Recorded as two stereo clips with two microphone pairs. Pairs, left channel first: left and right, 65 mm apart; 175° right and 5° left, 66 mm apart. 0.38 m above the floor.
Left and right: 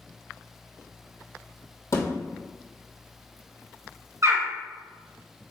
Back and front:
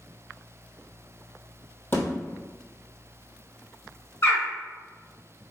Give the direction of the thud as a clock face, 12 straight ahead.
8 o'clock.